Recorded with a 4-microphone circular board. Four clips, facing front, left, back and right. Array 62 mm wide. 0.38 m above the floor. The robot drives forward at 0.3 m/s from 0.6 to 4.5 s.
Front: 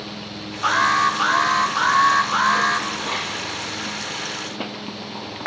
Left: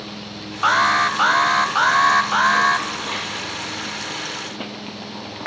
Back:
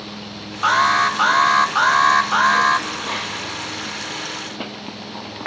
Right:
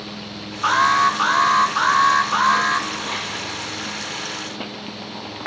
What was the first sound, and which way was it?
An alarm, 115° left.